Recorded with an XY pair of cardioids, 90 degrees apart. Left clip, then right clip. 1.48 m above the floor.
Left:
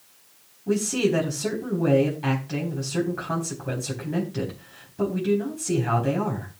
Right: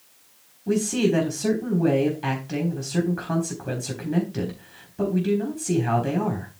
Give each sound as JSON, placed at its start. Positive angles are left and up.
{"t": 0.7, "sound": "a man speaking", "azimuth_deg": -20, "distance_m": 3.5}